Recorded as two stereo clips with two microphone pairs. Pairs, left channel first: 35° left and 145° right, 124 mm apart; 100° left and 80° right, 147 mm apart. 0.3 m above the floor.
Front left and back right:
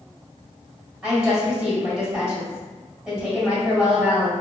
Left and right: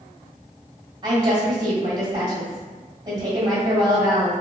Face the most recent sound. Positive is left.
turn(degrees=-65)